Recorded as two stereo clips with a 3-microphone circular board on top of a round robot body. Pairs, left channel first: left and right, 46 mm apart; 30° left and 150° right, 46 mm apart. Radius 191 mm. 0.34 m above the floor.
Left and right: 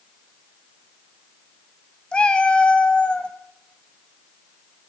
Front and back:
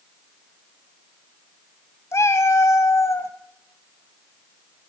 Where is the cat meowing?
20° left, 1.9 m.